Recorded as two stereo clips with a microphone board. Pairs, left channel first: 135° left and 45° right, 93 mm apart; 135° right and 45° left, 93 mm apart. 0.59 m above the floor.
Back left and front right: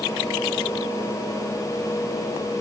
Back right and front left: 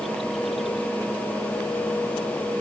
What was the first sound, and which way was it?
Only background noise.